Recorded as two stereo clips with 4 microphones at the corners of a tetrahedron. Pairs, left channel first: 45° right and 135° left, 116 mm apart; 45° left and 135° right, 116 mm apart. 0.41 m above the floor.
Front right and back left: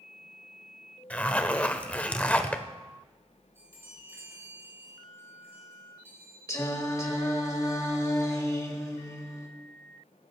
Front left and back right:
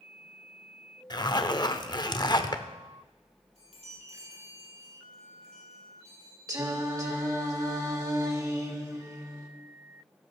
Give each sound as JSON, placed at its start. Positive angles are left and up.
{"t": 1.1, "sound": "a zipper", "azimuth_deg": 25, "distance_m": 0.7}
{"t": 3.5, "sound": "a chime", "azimuth_deg": -155, "distance_m": 4.0}
{"t": 6.5, "sound": "singing", "azimuth_deg": -90, "distance_m": 1.7}